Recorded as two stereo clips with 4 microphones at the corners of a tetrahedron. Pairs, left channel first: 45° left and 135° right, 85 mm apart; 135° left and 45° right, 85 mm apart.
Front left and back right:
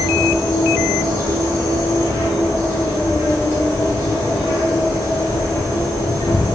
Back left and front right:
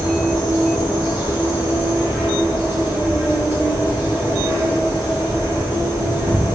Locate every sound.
0.0 s an insect: 110° right, 2.0 m